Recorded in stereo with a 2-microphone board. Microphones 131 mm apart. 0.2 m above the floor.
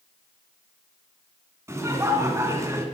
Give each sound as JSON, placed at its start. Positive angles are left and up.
{"t": 1.7, "sound": "laughter", "side_deg": -20, "distance_m": 2.0}